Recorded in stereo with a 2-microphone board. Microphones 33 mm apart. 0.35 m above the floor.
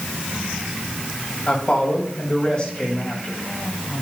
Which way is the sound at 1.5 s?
35° left (ahead or behind).